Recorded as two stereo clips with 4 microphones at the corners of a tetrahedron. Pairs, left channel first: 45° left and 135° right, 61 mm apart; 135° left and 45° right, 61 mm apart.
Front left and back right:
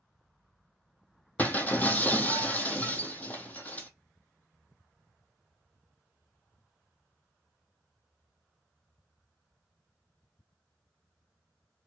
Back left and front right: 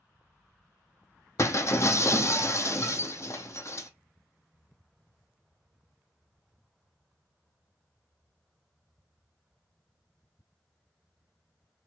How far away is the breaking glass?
About 0.6 m.